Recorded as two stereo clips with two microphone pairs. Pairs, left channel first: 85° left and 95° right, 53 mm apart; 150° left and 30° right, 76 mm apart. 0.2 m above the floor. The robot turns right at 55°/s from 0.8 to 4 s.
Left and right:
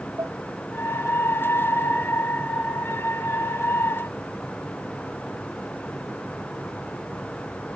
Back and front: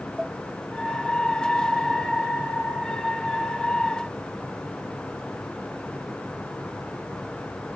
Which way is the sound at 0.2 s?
120° right.